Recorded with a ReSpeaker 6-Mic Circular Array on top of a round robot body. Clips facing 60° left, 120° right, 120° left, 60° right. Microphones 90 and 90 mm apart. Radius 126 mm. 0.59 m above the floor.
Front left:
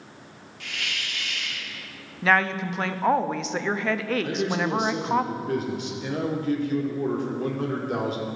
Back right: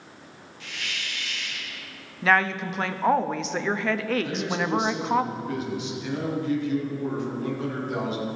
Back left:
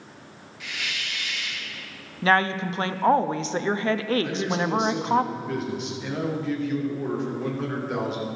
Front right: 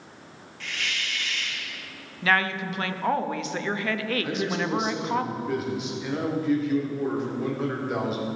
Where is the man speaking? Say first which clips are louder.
Front left 2 dB, back left 1 dB; 25° left, 2 m.